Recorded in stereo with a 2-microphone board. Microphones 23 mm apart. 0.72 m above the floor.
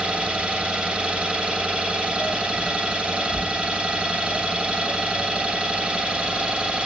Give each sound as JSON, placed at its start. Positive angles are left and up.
{"t": 0.0, "sound": "an engine running", "side_deg": -55, "distance_m": 2.5}